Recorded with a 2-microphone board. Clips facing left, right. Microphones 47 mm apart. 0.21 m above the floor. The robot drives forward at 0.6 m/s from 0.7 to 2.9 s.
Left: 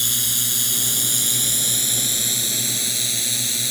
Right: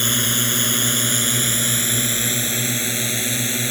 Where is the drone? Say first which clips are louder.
Right 6 dB; 40° right (ahead or behind); by 3.7 s 35° right (ahead or behind).